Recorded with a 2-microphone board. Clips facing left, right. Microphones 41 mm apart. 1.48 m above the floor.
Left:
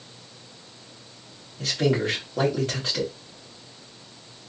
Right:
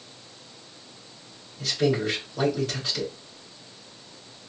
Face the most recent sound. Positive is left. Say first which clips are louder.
# left 1 dB
turn(degrees=45)  # may be behind; listen again after turning